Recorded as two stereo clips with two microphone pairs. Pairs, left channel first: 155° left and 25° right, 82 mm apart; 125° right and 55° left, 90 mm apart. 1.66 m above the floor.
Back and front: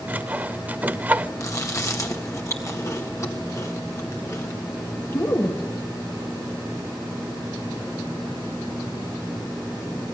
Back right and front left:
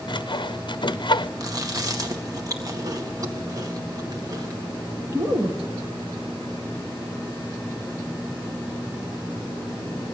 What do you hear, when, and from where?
0.1 s sawing: 95° right, 0.5 m
1.4 s chewing: 100° left, 1.8 m